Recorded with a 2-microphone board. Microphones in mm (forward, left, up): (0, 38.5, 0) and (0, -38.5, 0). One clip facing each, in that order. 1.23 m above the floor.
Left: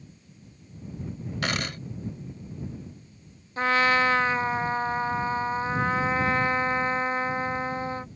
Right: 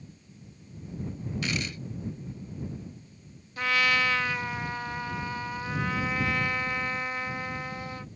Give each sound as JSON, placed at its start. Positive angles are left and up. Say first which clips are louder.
{"t": 1.4, "sound": "a dropped coin", "louder": "left 4 dB", "side_deg": 65}
{"t": 3.6, "sound": "a trumpet", "louder": "left 4 dB", "side_deg": 35}